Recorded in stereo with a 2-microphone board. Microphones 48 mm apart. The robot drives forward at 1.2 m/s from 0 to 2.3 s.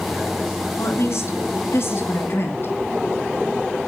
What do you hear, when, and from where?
0.8 s a woman speaking: 55° left (ahead or behind), 2.5 m; by 2.7 s 50° left (ahead or behind), 2.5 m